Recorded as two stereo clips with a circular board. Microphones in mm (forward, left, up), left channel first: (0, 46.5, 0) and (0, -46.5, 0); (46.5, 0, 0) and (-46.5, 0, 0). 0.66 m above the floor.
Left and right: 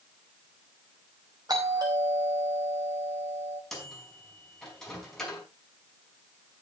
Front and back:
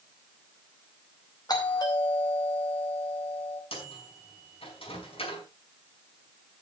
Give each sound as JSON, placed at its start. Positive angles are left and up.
{"t": 1.5, "sound": "a doorbell", "azimuth_deg": -45, "distance_m": 4.5}
{"t": 3.7, "sound": "a microwave", "azimuth_deg": 5, "distance_m": 5.0}